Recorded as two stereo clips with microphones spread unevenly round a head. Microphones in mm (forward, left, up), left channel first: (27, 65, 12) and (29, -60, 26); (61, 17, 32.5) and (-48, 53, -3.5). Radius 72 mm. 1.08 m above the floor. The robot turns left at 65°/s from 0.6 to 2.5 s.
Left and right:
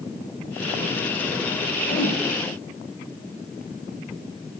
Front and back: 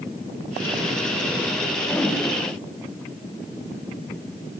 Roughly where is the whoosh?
Ahead left.